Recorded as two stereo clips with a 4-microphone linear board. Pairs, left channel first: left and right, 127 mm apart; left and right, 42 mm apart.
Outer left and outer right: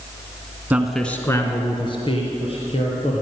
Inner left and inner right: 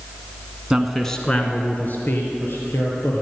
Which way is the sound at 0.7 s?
15° right (ahead or behind).